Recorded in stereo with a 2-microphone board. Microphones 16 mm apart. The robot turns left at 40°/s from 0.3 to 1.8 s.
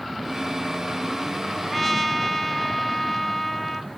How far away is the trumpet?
About 1.5 m.